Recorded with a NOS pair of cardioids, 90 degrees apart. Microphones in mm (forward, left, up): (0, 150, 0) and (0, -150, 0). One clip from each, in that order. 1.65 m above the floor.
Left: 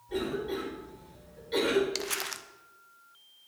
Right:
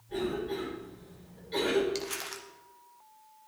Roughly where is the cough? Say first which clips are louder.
Left 1 dB; ahead left.